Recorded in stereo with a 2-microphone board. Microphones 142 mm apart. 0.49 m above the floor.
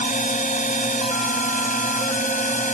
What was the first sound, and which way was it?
A drone, 65° left (ahead or behind).